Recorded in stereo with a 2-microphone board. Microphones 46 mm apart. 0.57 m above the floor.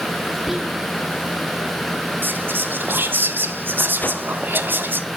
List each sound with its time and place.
0.5 s whispering: 10° right (ahead or behind), 0.8 m
2.2 s whispering: 45° right (ahead or behind), 0.9 m
4.0 s a whoosh: 40° left (ahead or behind), 0.6 m